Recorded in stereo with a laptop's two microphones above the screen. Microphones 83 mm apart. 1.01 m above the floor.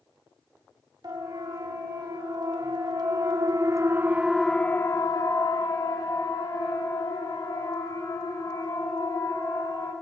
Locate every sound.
1.0 s a siren: 60° right (ahead or behind), 3 m; by 9.9 s 60° left (ahead or behind), 5 m